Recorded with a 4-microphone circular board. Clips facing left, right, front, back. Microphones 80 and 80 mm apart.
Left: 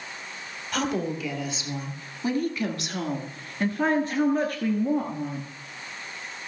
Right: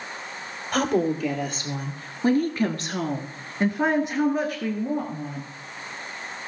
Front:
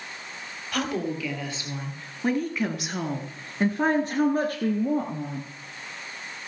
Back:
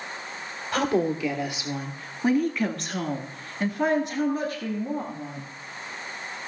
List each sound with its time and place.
0.7 s a woman speaking: 120° right, 2.5 m; by 5.4 s 5° left, 2 m